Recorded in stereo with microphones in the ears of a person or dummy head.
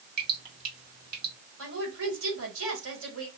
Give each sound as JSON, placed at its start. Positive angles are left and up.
{"t": 0.2, "sound": "dripping", "side_deg": -55, "distance_m": 1.4}
{"t": 1.6, "sound": "a woman speaking", "side_deg": -70, "distance_m": 1.8}